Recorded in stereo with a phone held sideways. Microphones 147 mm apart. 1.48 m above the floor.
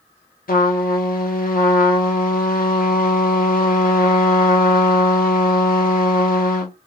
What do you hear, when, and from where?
0.5 s a trumpet: 70° left (ahead or behind), 0.6 m